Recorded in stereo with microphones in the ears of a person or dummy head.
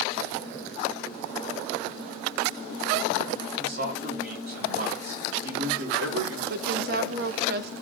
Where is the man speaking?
55° right (ahead or behind), 4.5 m; by 6.4 s 75° right (ahead or behind), 4.5 m.